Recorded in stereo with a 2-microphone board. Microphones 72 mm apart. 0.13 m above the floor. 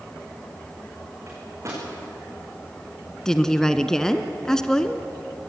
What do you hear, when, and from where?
1.3 s a microwave: 45° right (ahead or behind), 9 m
3.2 s a woman speaking: 10° left (ahead or behind), 1.1 m